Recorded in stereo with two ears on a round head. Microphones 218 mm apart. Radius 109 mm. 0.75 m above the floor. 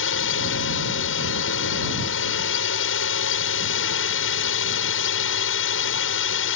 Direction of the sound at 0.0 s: 55° left (ahead or behind).